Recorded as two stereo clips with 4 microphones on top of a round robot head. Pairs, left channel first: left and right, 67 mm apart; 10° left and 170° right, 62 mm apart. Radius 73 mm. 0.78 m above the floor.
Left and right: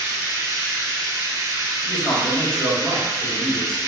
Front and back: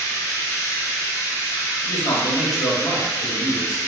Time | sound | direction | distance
0.0 | running water | 45° right | 0.8 m
1.8 | a man speaking | 15° left | 1.6 m